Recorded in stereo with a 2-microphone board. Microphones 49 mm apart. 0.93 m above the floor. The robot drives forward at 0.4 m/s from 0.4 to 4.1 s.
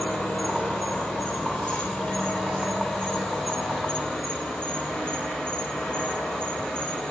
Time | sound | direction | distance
0.0 | an insect | 25° left (ahead or behind) | 6 m